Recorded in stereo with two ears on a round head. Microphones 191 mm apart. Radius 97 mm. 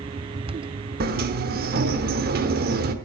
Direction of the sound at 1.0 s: 45° right (ahead or behind).